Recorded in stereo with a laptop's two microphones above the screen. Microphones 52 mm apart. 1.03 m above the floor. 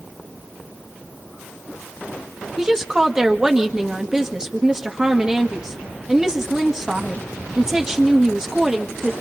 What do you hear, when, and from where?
2.6 s a woman speaking: 10° right (ahead or behind), 1.8 m